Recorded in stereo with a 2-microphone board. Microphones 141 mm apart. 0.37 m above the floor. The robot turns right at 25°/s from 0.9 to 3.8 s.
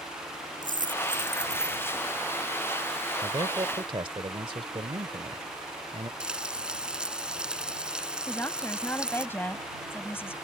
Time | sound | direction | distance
0.6 | a dropped coin | 70° right (ahead or behind) | ?
3.2 | a man speaking | 35° right (ahead or behind) | ?
6.2 | frying | 5° right (ahead or behind) | ?
8.3 | a woman speaking | 15° left (ahead or behind) | ?